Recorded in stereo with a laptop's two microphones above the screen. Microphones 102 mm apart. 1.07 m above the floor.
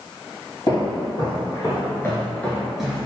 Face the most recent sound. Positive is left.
turn(degrees=-15)  # may be behind; listen again after turning